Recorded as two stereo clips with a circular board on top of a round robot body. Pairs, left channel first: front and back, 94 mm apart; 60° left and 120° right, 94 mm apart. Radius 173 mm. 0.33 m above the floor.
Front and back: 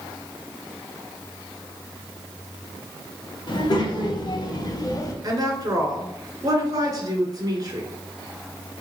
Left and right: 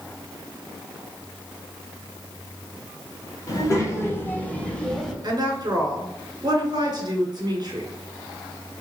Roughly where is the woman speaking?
Behind right.